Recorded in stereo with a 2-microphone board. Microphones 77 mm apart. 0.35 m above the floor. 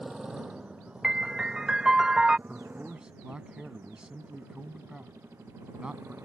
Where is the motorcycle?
5° right (ahead or behind); by 6.2 s 30° right (ahead or behind).